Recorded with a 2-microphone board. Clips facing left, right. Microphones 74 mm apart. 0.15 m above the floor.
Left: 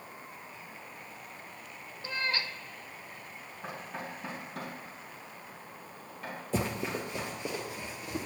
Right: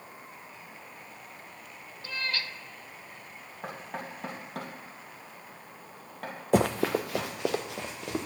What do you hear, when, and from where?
2.0 s a cat meowing: 25° left (ahead or behind), 0.6 m
3.6 s knocking: 60° right (ahead or behind), 3 m
6.5 s running footsteps: 70° right (ahead or behind), 0.5 m; by 8.3 s 75° right (ahead or behind), 2 m